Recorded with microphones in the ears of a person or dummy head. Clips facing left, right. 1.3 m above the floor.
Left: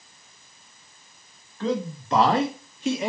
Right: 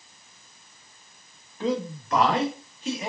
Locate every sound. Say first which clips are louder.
1.6 s a man speaking: even; 15° right (ahead or behind), 0.5 m; by 3.1 s 60° left (ahead or behind), 0.9 m